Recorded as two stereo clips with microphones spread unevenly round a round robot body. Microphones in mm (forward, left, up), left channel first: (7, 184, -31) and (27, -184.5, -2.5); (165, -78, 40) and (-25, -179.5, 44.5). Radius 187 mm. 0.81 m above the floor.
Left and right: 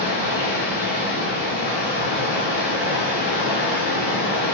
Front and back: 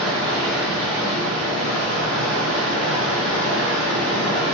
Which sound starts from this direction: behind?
Running water, at 0.0 s.